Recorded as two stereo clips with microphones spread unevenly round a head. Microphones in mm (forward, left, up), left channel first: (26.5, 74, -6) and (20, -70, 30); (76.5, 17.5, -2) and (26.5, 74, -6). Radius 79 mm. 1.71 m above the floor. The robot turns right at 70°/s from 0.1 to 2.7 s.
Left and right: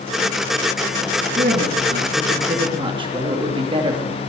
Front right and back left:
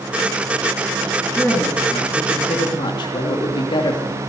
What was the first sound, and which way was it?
A woman speaking, 135° right.